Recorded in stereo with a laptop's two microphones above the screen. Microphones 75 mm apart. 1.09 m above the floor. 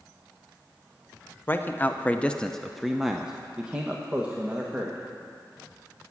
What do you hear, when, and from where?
1.5 s a man speaking: 25° left (ahead or behind), 0.8 m; by 5.0 s 20° right (ahead or behind), 1.8 m